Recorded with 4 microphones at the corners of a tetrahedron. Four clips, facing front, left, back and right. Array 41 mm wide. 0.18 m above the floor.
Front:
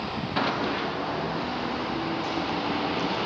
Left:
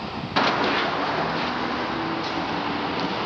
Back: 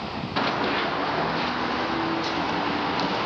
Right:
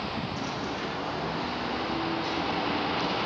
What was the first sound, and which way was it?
Running footsteps, 90° left.